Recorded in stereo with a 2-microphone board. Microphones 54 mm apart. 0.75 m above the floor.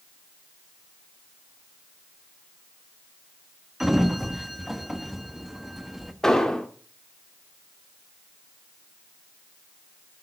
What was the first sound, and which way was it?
A sliding door, 5° right (ahead or behind).